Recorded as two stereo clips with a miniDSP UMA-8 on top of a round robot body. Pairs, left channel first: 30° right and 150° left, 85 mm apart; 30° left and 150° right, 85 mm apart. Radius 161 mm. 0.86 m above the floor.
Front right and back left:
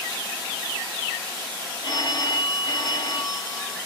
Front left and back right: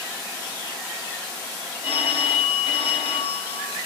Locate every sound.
1.8 s a phone ringing: 15° left, 1.4 m